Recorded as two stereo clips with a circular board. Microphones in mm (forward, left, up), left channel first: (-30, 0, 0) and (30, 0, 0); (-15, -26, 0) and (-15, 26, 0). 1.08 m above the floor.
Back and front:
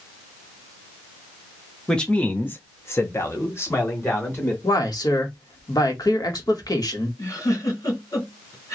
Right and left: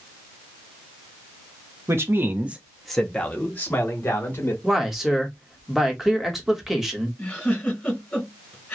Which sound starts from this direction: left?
A man speaking, at 1.9 s.